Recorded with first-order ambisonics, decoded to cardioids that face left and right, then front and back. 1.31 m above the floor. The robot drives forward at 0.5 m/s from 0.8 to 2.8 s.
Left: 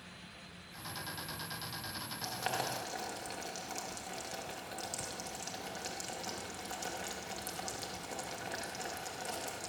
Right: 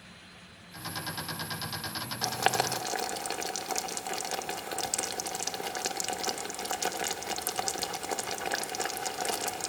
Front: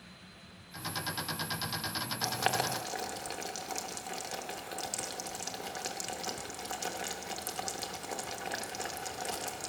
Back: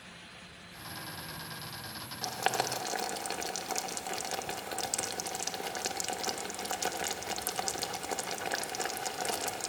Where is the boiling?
75° right, 0.7 m; by 9.7 s 115° right, 0.7 m.